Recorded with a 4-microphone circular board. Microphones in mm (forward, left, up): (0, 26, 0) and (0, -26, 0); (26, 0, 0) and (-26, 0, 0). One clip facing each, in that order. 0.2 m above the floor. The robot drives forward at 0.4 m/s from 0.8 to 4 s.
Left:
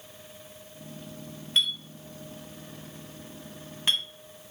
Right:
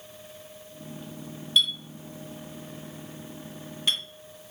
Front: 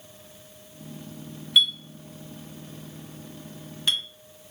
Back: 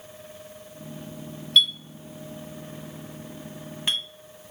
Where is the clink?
65° left, 1.0 m; by 4.0 s 140° left, 1.2 m.